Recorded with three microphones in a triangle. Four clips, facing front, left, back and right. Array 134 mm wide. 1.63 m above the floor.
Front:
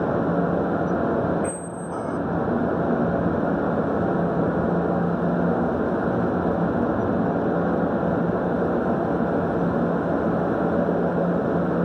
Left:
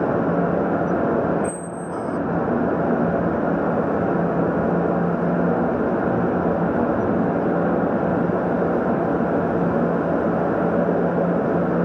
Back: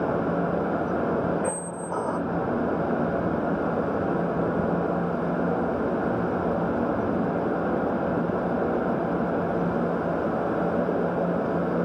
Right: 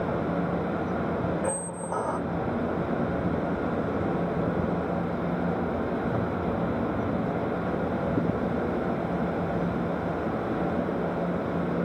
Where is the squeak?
140° right, 0.6 m.